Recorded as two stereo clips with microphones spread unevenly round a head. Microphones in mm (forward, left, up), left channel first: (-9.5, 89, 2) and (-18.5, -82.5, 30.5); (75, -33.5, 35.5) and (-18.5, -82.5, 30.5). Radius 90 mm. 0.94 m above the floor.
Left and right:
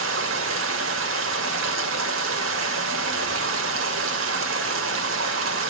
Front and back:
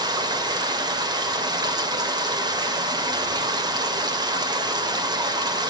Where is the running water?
105° right, 2.5 m.